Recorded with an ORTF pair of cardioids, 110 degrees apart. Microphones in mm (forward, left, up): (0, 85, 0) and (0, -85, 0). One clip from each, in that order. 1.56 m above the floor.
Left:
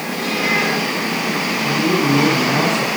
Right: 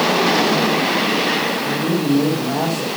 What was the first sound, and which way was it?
A man speaking, 15° left.